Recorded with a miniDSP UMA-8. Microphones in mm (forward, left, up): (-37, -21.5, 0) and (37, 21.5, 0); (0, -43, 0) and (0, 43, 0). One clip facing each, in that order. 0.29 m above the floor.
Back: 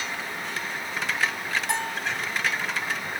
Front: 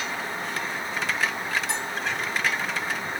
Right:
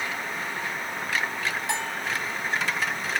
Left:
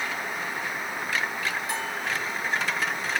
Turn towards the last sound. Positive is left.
turn(degrees=-110)